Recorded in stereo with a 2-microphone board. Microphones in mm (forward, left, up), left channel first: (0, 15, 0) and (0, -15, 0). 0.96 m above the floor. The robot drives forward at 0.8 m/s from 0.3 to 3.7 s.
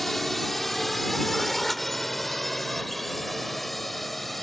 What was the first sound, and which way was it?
A drone, 5° left (ahead or behind).